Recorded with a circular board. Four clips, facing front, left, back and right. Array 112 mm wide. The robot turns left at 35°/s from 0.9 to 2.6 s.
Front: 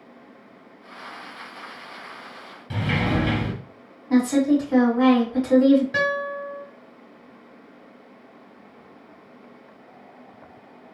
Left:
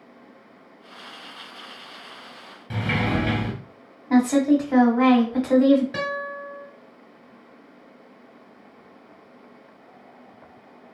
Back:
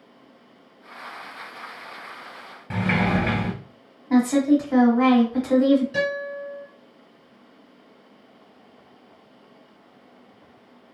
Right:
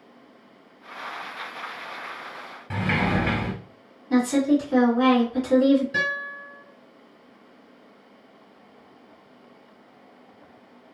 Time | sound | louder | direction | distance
2.7 | a sliding door | even, back 2 dB | 155° right | 0.9 m
4.1 | a woman speaking | left 2 dB, back 1 dB | 105° left | 1.3 m
5.9 | a guitar | left 1 dB, front 1 dB | 40° left | 1.7 m